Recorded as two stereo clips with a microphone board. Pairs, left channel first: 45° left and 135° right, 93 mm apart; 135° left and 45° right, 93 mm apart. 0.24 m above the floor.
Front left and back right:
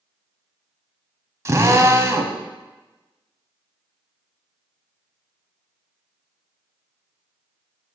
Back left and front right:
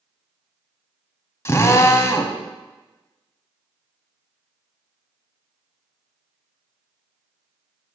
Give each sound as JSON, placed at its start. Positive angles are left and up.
{"t": 1.4, "sound": "a drill", "azimuth_deg": 180, "distance_m": 0.8}